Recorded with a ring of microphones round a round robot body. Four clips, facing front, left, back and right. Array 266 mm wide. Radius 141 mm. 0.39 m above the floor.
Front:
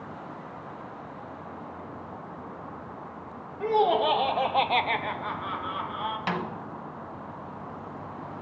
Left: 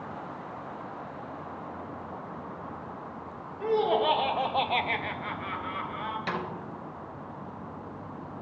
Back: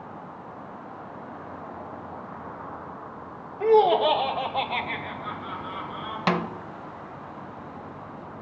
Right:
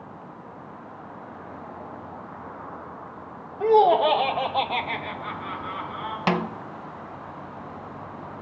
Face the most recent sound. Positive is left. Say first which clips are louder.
# right 11 dB, back 8 dB
turn(degrees=-130)